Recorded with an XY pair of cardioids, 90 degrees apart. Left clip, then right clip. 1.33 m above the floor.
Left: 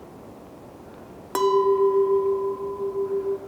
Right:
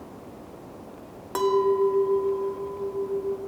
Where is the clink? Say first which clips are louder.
Left 3 dB; 35° left, 0.8 m.